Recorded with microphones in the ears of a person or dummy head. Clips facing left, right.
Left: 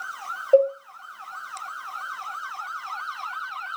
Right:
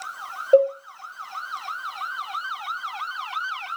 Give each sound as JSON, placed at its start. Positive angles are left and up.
{"t": 0.5, "sound": "a cowbell", "side_deg": -20, "distance_m": 0.7}